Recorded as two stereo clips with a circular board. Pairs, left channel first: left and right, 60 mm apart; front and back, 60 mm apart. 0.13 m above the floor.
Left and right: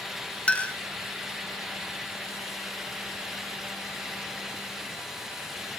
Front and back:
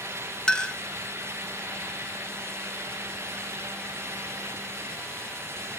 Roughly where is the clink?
Ahead left.